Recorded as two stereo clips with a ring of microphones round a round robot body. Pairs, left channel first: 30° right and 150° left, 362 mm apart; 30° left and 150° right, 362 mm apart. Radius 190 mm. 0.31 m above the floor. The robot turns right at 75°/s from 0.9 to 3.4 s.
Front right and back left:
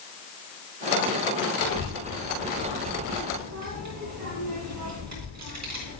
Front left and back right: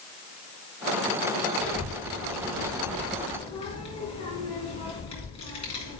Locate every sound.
1.6 s a child speaking: 30° right, 3 m; by 6.0 s 105° left, 3 m